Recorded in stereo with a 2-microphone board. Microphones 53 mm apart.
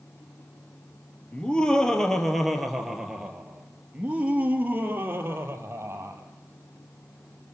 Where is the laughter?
20° left (ahead or behind), 4.5 m; by 6.2 s 50° right (ahead or behind), 5.5 m.